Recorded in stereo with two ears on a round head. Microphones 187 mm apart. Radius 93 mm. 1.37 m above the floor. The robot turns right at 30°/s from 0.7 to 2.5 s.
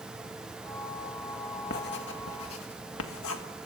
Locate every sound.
1.7 s writing: 50° left (ahead or behind), 2.0 m; by 3.4 s 75° left (ahead or behind), 2.0 m